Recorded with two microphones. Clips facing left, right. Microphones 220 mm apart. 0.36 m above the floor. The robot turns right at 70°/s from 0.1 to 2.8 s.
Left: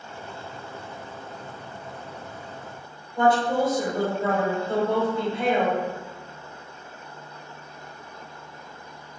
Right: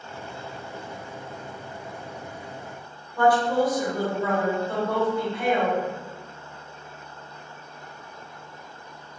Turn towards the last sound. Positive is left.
turn(degrees=25)  # may be behind; listen again after turning